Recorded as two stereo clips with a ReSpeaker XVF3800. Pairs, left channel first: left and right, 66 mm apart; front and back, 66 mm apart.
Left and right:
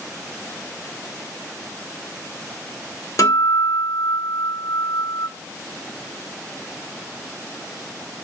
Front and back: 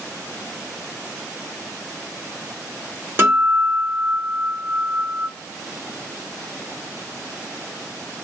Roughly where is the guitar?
Behind left.